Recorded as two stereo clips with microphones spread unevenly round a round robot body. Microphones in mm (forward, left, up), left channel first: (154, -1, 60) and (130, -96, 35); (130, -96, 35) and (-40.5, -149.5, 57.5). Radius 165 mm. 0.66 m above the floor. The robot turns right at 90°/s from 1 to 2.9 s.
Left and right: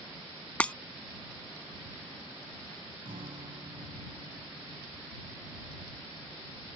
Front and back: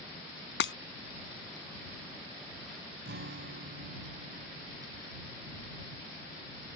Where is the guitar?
155° right.